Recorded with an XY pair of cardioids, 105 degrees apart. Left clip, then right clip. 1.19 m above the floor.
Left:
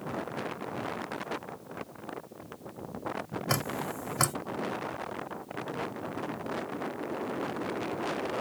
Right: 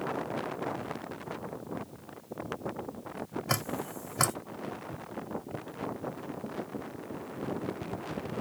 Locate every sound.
3.5 s dripping: straight ahead, 1.7 m